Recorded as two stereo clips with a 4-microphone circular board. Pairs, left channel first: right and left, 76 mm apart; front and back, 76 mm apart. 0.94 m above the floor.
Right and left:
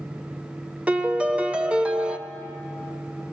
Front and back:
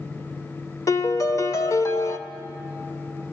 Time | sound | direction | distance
0.9 | a piano | 25° left | 0.8 m